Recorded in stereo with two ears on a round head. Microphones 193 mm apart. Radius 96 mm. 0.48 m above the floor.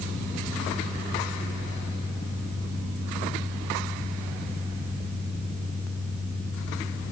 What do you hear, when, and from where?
Only background noise.